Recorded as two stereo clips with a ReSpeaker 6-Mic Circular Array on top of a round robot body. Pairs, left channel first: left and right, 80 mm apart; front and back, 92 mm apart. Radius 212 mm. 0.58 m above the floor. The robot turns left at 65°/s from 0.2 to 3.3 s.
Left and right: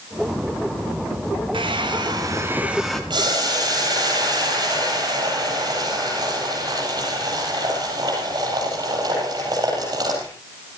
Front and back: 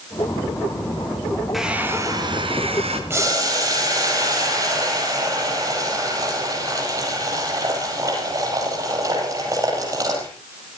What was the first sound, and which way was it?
A hair dryer, 90° right.